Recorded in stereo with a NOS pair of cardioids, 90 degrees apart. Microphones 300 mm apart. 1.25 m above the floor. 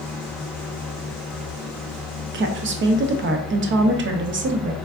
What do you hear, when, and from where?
0.0 s a fan: straight ahead, 0.8 m
2.3 s a woman speaking: 40° right, 0.7 m